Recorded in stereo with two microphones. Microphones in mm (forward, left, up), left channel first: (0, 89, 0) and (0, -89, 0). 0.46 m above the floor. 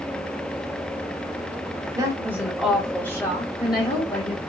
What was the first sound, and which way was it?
A woman speaking, 20° right (ahead or behind).